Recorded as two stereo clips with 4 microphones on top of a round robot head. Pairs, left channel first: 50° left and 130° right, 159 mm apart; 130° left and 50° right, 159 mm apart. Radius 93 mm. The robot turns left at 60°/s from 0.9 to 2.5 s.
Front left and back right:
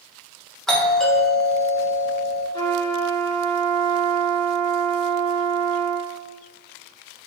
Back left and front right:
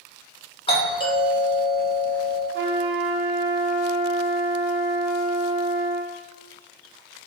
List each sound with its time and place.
0.7 s a doorbell: 135° left, 1.2 m; by 2.4 s 40° left, 1.2 m
2.5 s a trumpet: 20° right, 1.1 m